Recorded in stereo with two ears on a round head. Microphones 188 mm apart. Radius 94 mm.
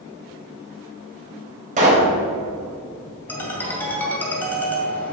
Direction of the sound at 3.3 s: 10° left (ahead or behind).